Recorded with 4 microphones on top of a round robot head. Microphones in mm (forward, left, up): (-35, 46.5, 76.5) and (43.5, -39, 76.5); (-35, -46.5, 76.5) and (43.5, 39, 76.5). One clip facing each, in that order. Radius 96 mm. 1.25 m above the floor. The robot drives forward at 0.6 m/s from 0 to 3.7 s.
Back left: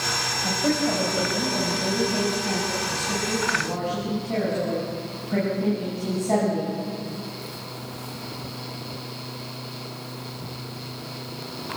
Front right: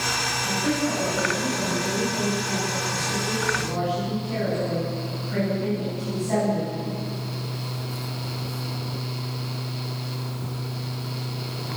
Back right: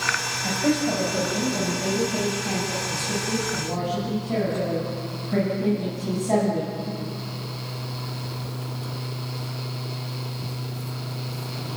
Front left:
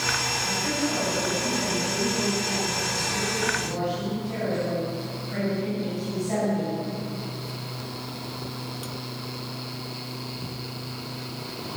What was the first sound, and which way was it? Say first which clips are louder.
A woman speaking: back left 2 dB, back right 7 dB; 175° right.